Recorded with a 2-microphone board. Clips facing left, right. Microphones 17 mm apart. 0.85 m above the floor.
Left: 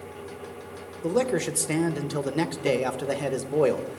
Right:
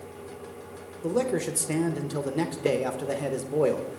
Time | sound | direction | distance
1.0 | a man speaking | 30° left (ahead or behind) | 0.8 m